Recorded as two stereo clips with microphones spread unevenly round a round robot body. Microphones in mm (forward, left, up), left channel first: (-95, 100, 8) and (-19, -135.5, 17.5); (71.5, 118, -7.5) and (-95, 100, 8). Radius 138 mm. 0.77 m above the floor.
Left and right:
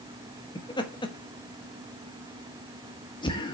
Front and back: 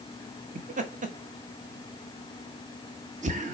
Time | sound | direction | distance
0.6 | laughter | 170° left | 1.3 m